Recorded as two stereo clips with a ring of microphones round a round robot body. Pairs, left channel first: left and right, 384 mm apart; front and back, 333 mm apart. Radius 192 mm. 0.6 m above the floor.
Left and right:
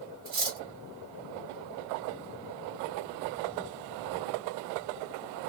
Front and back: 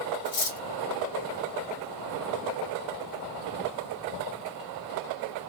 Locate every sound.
0.2 s cutlery clinking: 25° right, 1.6 m